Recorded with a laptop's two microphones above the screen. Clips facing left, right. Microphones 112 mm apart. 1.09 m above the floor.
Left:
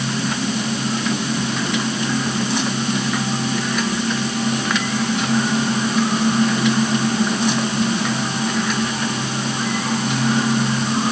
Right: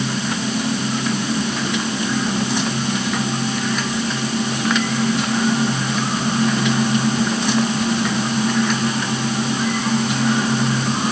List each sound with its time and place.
Only background noise.